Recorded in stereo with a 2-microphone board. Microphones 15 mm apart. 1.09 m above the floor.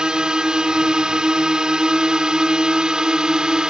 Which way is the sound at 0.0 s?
65° right (ahead or behind).